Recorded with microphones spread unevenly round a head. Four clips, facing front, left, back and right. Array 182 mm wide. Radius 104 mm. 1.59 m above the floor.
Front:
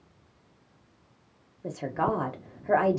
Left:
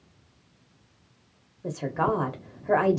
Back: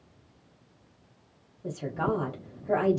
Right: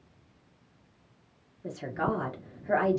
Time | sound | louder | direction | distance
1.6 | a woman speaking | left 5 dB, front 2 dB | 30° left | 1.4 m